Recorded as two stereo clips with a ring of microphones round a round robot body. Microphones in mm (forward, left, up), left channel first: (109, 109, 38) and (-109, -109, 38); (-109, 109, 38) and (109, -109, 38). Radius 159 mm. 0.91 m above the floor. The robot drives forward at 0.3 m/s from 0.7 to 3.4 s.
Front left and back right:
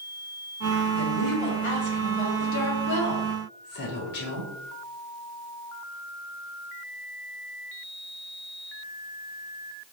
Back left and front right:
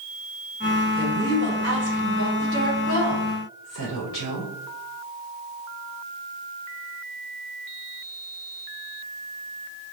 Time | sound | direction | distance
1.0 | a woman speaking | 70° left | 2.5 m